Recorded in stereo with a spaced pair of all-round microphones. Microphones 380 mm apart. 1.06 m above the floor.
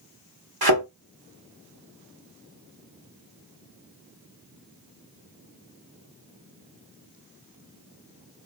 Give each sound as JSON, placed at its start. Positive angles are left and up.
{"t": 0.6, "sound": "a thud", "side_deg": -75, "distance_m": 1.2}